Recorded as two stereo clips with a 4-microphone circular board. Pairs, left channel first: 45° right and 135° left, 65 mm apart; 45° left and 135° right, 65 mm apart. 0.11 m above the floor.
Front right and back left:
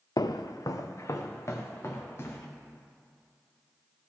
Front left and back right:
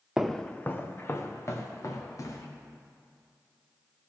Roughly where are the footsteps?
Ahead right.